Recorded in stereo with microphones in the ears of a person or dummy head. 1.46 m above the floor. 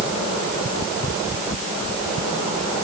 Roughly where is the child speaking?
I don't hear a child speaking.